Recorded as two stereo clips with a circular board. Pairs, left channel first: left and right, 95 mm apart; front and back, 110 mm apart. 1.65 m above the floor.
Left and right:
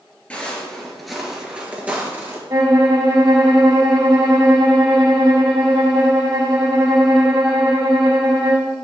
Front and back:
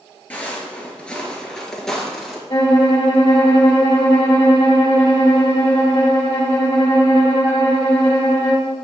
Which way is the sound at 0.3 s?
45° left.